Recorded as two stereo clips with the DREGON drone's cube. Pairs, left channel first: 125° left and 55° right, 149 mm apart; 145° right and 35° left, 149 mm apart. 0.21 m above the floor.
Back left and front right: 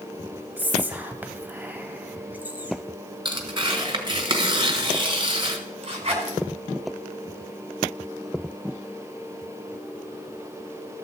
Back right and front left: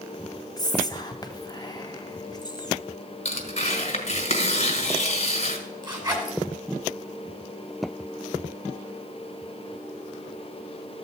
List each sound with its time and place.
0.6 s whispering: 125° right, 1.2 m
3.2 s tearing paper: 110° right, 1.6 m
5.8 s a zipper: 20° right, 2.5 m